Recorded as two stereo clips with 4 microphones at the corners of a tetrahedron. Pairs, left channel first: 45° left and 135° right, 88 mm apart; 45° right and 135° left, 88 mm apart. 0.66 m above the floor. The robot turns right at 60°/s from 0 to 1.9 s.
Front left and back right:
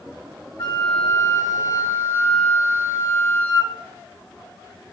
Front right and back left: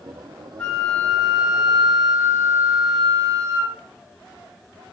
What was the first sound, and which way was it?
A flute, 25° left.